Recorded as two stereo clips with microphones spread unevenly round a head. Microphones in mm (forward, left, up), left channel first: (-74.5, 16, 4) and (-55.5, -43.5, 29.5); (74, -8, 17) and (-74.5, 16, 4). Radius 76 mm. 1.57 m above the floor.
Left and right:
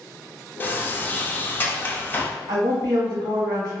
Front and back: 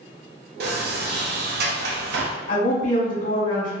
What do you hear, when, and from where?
0.6 s a sliding door: 160° left, 0.5 m
2.5 s a woman speaking: 50° right, 1.2 m